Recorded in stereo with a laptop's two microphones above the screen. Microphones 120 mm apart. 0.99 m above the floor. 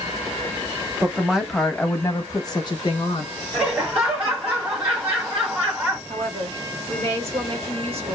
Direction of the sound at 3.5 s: 15° right (ahead or behind).